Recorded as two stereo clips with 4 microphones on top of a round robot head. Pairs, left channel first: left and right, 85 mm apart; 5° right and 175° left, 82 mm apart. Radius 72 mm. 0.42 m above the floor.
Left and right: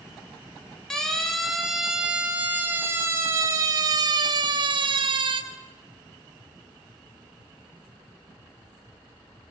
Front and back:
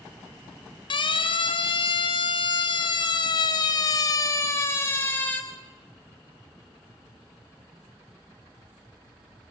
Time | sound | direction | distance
0.9 | a siren | 10° left | 2 m